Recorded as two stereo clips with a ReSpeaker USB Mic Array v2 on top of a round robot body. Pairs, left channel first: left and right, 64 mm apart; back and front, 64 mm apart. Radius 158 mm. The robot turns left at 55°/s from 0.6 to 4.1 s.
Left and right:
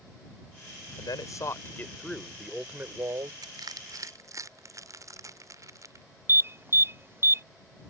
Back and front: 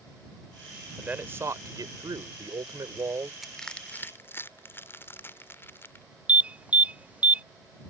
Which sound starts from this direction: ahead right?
An alarm, at 6.3 s.